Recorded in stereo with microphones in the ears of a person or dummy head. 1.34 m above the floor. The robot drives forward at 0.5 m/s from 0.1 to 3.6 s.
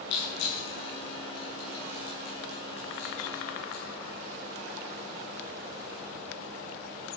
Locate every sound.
0.1 s crushing: 75° left (ahead or behind), 7.5 m; by 3.8 s 65° left (ahead or behind), 8 m